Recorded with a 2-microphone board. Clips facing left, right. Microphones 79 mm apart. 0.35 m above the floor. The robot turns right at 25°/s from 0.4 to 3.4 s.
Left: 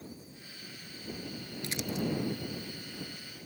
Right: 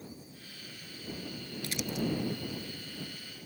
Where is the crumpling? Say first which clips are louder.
Even; 20° left (ahead or behind); by 2.0 s 30° left (ahead or behind).